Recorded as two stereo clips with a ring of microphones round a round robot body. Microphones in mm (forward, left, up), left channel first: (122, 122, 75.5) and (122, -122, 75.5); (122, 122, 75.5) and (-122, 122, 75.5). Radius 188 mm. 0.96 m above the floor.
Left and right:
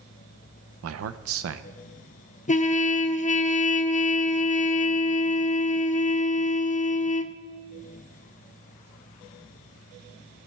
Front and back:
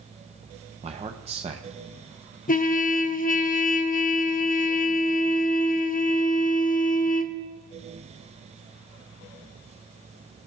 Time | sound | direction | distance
0.8 | a man speaking | 115° right | 0.5 m
2.5 | a trumpet | 40° left | 0.8 m